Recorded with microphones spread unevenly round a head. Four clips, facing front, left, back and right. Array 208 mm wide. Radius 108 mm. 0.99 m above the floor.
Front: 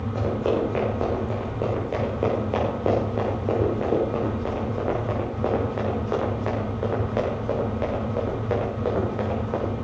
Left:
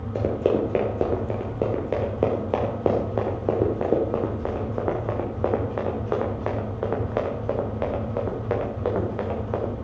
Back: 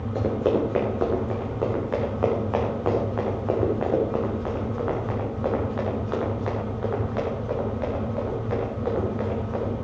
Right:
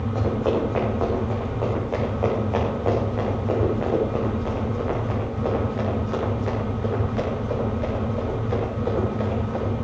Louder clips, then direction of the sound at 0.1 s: Left 1 dB, back 1 dB; 115° left.